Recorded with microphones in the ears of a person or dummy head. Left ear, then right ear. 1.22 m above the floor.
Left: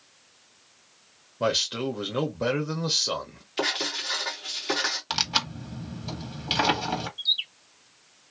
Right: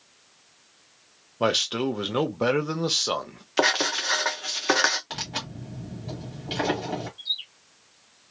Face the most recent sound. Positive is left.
turn(degrees=75)  # may be behind; listen again after turning